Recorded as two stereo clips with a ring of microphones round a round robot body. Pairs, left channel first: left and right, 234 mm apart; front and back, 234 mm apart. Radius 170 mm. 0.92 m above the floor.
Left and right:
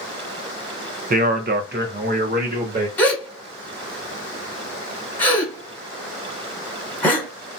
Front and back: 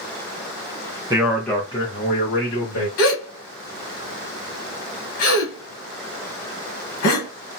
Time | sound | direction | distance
1.1 | a man speaking | 115° right | 0.6 m
3.0 | a gasp | 5° left | 1.2 m